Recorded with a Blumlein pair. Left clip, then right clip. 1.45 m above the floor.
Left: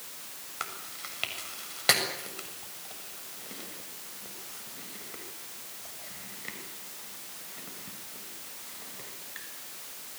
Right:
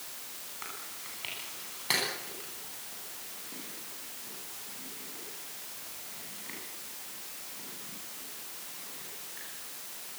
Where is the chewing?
45° left, 7 m.